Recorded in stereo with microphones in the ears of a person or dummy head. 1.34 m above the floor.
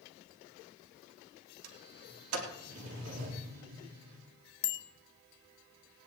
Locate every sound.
1.6 s a sliding door: 80° right, 3 m
4.6 s a bicycle bell: 60° left (ahead or behind), 2.5 m